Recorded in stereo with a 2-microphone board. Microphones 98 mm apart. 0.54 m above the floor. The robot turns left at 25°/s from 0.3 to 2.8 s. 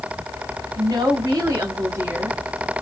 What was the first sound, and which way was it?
A woman speaking, 115° right.